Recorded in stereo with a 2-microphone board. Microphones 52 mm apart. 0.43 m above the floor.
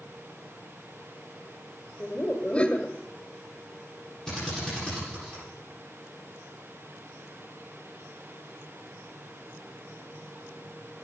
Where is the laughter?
25° left (ahead or behind), 1.2 m.